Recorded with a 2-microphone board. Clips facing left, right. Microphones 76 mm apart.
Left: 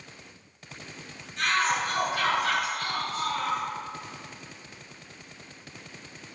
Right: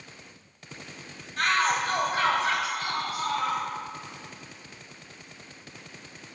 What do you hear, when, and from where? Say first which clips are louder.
1.4 s a shout: right 1 dB; 55° right (ahead or behind), 1.5 m; by 3.6 s 5° right (ahead or behind), 2 m